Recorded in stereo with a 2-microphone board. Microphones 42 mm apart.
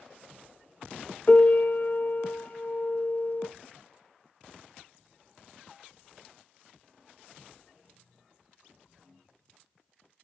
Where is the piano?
50° left (ahead or behind), 0.6 m.